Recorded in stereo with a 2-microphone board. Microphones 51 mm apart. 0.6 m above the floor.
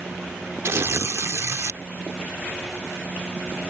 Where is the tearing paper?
60° right (ahead or behind).